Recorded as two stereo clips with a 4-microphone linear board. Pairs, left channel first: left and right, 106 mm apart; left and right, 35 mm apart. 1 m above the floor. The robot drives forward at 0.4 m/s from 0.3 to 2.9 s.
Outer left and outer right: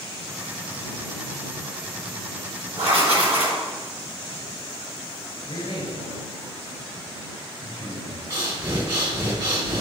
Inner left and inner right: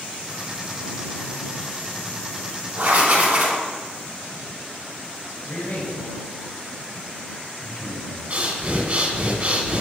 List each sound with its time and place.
2.8 s writing: 85° right, 4 m
5.4 s a man speaking: 50° left (ahead or behind), 4.5 m
8.3 s breathing: 50° right (ahead or behind), 1.7 m